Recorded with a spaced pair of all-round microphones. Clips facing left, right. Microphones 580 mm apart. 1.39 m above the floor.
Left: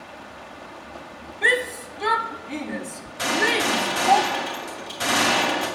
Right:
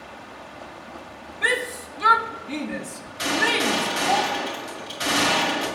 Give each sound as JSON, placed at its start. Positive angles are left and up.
{"t": 1.4, "sound": "a shout", "side_deg": -35, "distance_m": 1.0}
{"t": 3.2, "sound": "a gunshot", "side_deg": 70, "distance_m": 2.5}